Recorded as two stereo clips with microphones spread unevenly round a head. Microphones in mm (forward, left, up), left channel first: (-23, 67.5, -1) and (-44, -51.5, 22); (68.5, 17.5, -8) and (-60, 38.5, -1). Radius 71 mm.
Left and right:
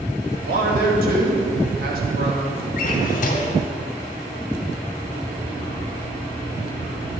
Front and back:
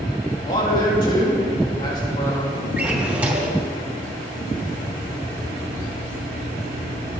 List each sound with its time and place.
0.5 s a man speaking: 70° right, 2.5 m
2.8 s a drawer: 95° left, 2 m